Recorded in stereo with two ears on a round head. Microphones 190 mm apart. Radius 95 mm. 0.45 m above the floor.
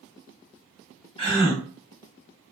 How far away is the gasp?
About 1.6 m.